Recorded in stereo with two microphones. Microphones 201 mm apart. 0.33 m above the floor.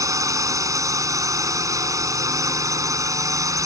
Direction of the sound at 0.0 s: 15° right (ahead or behind).